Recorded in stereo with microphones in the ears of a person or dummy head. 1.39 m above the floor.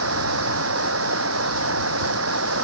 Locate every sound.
0.0 s running water: 85° right